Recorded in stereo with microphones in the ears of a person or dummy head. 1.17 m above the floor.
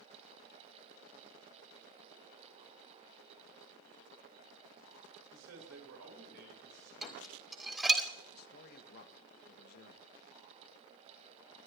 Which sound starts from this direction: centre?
Dishes clattering, at 7.0 s.